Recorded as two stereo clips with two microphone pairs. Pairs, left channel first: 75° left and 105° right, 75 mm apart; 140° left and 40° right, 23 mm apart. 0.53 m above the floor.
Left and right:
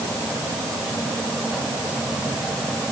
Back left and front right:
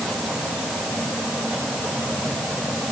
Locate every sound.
Only background noise.